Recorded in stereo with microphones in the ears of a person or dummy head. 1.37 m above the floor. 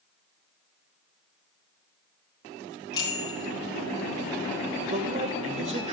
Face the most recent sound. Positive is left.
turn(degrees=-35)  # may be behind; listen again after turning